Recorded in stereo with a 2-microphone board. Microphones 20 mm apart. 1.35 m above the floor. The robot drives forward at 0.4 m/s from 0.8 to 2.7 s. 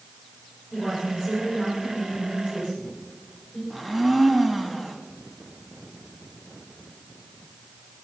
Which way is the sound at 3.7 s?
10° left (ahead or behind).